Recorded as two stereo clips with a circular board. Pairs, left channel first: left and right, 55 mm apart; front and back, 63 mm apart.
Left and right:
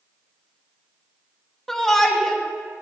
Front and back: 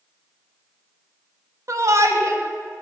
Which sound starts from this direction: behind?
A shout, at 1.7 s.